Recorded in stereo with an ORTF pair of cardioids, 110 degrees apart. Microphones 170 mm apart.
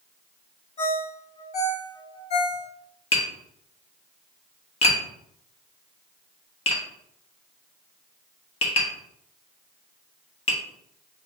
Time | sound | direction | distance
0.8 | a ringtone | 40° left | 1.4 m
3.1 | tapping | 35° left | 1.2 m